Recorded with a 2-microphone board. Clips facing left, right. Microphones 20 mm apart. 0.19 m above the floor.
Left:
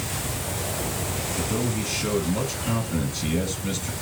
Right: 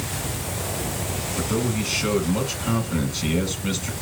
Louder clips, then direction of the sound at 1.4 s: Right 3 dB; 25° right (ahead or behind).